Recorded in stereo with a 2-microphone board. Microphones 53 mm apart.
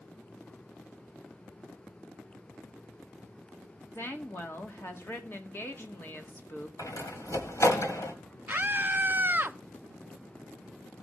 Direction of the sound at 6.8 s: 85° left.